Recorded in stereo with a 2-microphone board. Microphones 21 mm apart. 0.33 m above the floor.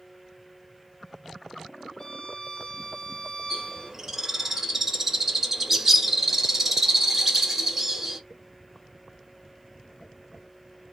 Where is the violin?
55° left (ahead or behind), 2.5 m.